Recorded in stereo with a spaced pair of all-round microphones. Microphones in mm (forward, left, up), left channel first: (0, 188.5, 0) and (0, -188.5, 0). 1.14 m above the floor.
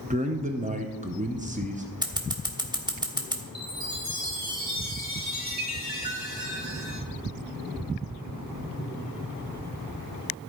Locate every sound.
0.1 s a man speaking: 20° right (ahead or behind), 0.8 m
2.0 s scissors: 10° right (ahead or behind), 1.2 m
3.5 s a chime: 45° right (ahead or behind), 2.5 m